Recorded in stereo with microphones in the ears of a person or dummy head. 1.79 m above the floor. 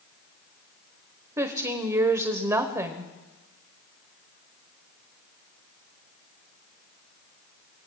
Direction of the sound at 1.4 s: 25° right (ahead or behind).